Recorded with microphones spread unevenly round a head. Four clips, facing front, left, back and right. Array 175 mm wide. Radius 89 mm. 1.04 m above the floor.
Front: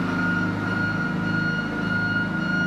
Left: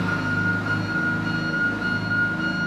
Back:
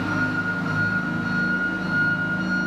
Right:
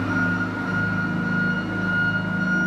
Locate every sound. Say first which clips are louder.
0.0 s an engine running: right 1 dB, even; 120° left, 1.5 m